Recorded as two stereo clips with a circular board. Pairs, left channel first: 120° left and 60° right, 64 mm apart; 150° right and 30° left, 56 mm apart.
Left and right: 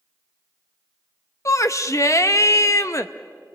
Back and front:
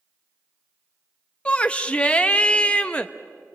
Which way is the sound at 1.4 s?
145° left.